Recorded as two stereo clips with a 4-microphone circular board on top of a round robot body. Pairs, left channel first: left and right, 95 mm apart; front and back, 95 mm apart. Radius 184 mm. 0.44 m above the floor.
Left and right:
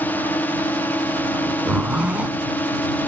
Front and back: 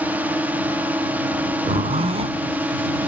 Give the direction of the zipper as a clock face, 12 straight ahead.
6 o'clock.